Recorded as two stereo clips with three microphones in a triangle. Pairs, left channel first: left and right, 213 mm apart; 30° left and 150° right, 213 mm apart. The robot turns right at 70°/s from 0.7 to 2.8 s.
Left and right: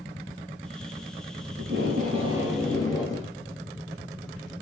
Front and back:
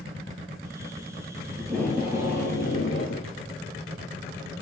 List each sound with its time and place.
1.6 s tape being pulled: 70° right, 6 m; by 3.3 s 15° left, 6 m